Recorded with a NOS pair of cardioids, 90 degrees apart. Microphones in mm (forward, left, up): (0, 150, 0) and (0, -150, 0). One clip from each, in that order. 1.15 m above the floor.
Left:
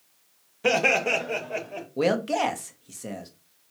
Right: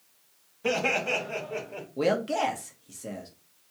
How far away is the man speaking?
About 0.9 m.